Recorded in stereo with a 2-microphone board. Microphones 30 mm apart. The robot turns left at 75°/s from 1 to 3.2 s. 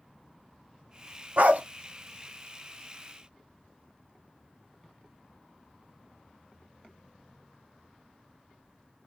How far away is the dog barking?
About 0.7 m.